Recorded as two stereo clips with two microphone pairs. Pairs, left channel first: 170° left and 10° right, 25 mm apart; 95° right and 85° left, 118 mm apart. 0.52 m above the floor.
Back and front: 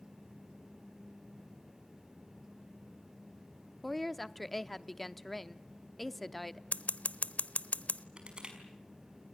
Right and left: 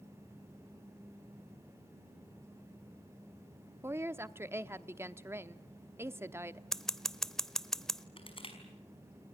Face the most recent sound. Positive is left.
turn(degrees=-55)